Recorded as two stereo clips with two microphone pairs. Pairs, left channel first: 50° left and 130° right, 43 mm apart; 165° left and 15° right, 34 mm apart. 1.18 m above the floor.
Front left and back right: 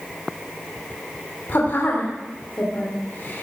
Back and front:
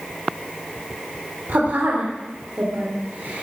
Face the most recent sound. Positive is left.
turn(degrees=5)